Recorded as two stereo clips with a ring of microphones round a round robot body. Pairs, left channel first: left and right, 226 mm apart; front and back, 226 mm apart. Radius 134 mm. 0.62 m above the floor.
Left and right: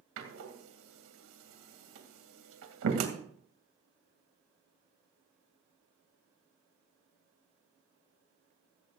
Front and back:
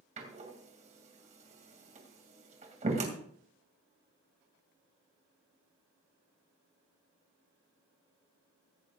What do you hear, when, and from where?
0.2 s a door slam: 120° right, 2 m